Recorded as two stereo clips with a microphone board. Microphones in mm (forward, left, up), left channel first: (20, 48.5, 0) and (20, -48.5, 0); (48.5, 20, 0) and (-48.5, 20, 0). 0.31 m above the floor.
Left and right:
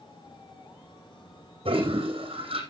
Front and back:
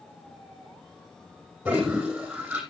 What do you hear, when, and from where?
1.6 s a toilet flushing: 105° right, 3.5 m